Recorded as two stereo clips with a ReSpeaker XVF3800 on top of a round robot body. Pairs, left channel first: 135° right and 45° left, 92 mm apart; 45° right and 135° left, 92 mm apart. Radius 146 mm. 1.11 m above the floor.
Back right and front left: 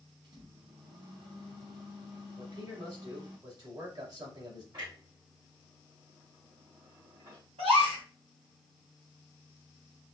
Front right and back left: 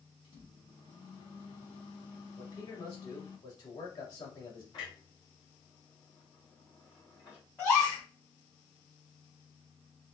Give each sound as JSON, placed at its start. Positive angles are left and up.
{"t": 0.2, "sound": "a microwave", "azimuth_deg": -5, "distance_m": 1.3}
{"t": 2.4, "sound": "a man speaking", "azimuth_deg": 0, "distance_m": 2.0}
{"t": 4.7, "sound": "a clunk", "azimuth_deg": 0, "distance_m": 2.0}
{"t": 7.6, "sound": "a gasp", "azimuth_deg": 30, "distance_m": 1.3}